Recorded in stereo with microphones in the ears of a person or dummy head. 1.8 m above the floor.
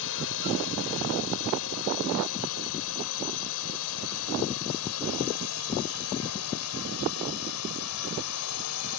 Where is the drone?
70° left (ahead or behind); by 9.0 s 85° left.